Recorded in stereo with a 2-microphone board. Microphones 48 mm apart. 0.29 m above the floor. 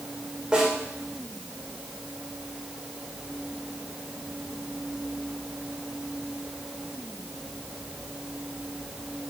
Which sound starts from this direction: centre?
A snare drum, at 0.5 s.